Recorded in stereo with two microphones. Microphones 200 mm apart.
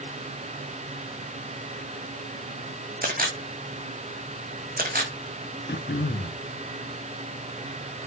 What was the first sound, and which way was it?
A camera shutter, 45° right (ahead or behind).